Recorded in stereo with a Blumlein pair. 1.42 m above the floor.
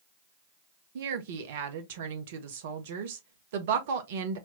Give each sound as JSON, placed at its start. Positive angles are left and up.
{"t": 0.9, "sound": "a woman speaking", "azimuth_deg": -55, "distance_m": 0.8}